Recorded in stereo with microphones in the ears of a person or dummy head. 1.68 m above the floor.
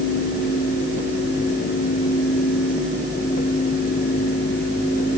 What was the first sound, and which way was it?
Only background noise.